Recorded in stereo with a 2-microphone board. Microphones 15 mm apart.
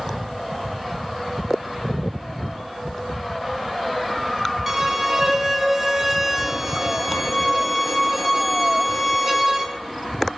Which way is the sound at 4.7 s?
15° right (ahead or behind).